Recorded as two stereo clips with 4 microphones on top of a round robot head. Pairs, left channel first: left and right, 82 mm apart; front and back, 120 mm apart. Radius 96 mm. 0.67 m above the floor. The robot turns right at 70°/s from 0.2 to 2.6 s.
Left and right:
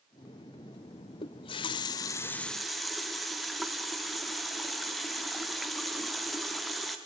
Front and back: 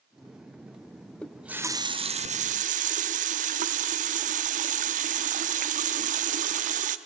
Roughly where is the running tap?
Left.